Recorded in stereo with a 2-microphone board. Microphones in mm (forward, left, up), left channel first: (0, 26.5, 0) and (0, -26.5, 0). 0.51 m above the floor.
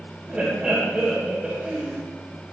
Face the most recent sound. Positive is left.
turn(degrees=-20)  # may be behind; listen again after turning